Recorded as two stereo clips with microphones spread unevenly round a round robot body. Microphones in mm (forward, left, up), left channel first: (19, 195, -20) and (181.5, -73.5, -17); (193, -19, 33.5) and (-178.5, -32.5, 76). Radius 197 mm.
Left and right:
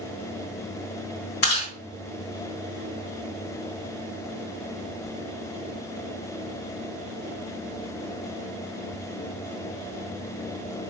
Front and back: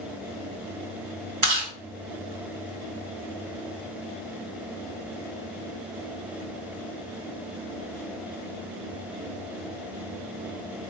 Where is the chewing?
135° left, 3.5 m.